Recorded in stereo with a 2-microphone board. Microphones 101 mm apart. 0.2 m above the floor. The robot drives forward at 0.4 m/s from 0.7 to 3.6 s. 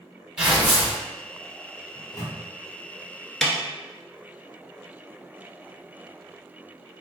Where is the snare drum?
5° left (ahead or behind), 0.6 m.